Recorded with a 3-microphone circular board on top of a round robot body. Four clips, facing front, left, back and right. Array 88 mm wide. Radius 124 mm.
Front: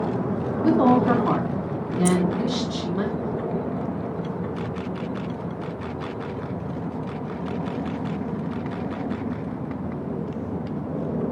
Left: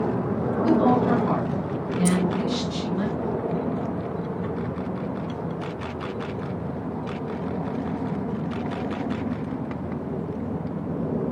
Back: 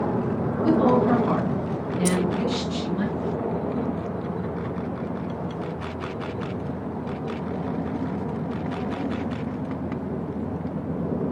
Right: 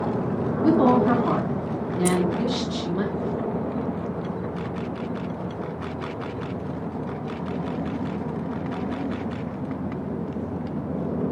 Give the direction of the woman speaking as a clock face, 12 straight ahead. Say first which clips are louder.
Right 2 dB, front 1 dB; 1 o'clock.